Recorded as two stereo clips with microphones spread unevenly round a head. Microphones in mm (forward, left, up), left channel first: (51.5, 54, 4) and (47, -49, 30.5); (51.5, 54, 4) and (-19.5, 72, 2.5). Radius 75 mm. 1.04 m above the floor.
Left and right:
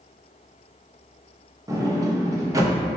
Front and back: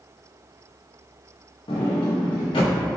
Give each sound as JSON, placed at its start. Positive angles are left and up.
{"t": 1.7, "sound": "a sliding door", "azimuth_deg": -30, "distance_m": 1.0}